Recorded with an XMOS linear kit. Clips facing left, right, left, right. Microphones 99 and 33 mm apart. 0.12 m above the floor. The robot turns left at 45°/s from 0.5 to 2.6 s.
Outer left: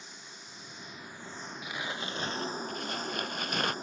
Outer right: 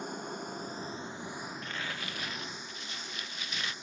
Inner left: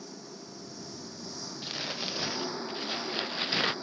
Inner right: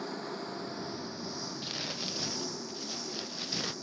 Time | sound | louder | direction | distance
0.0 | an engine running | outer right 13 dB, inner right 7 dB | 125° right | ?
1.6 | crumpling | outer left 2 dB, inner left 5 dB | 170° left | ?